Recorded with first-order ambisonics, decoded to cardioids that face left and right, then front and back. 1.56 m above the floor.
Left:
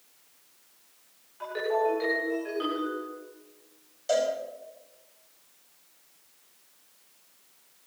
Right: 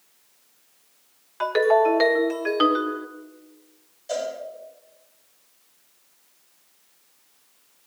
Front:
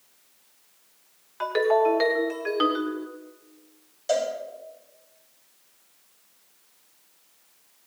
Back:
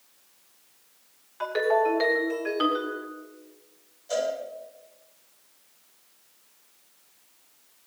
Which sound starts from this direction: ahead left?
A cowbell, at 4.1 s.